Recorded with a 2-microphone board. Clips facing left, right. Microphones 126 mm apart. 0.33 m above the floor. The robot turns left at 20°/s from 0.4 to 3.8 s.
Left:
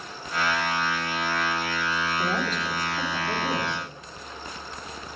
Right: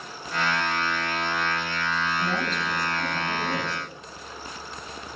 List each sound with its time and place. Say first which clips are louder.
2.2 s a woman speaking: left 1 dB; 60° left, 5.5 m; by 3.9 s 25° left, 5.5 m